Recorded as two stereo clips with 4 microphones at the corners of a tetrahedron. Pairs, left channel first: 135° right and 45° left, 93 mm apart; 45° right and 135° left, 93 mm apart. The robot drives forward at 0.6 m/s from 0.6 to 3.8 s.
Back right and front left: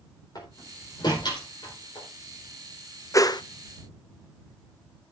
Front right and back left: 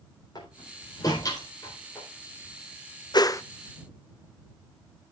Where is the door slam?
90° right, 4 m; by 2.1 s 105° right, 4 m.